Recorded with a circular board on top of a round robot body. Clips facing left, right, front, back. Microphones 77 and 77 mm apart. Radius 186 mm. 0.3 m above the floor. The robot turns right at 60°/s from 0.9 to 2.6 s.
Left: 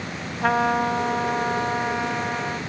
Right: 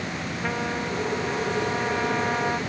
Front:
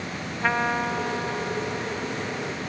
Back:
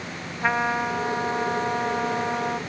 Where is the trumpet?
100° left; by 2.6 s 160° right.